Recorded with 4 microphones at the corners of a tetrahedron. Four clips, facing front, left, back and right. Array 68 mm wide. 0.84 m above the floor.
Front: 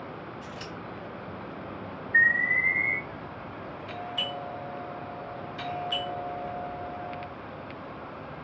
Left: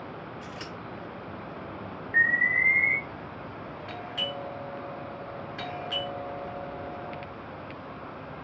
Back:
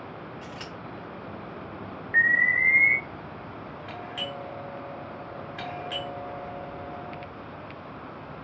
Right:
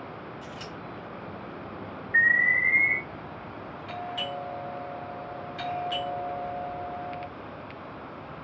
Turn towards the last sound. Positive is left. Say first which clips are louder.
# right 1 dB, front 2 dB
turn(degrees=145)